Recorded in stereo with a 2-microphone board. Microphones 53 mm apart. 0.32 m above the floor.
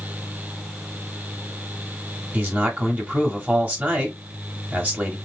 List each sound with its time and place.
2.3 s a man speaking: 35° right (ahead or behind), 1.3 m